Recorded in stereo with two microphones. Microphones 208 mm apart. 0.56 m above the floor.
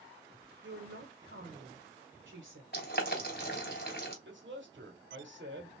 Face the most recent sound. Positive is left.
turn(degrees=-65)  # may be behind; listen again after turning